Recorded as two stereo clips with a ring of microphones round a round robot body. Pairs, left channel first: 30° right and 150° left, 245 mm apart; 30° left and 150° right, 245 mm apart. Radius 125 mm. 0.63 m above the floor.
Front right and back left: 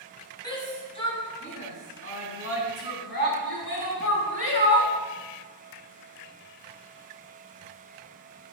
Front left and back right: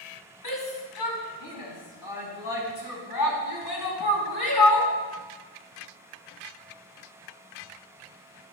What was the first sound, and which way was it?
A shout, 45° left.